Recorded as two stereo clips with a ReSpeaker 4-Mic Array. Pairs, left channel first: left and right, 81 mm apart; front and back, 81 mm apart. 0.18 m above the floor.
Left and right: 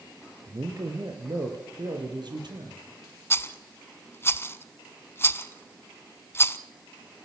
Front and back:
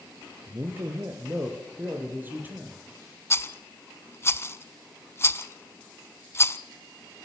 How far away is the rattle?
About 0.6 m.